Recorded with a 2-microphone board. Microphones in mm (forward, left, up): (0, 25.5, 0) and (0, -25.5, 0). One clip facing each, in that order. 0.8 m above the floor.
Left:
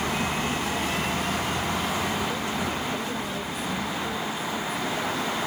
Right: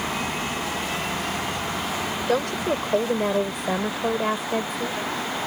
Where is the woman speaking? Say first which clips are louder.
Right 5 dB; 70° right (ahead or behind).